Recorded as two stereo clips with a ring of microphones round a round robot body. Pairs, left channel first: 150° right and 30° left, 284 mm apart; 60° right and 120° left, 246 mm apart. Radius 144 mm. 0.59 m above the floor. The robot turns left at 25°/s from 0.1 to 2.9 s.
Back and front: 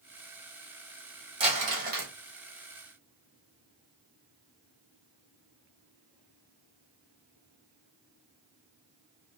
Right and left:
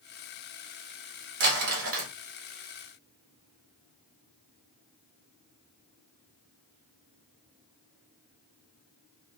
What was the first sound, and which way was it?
Crumpling, 100° left.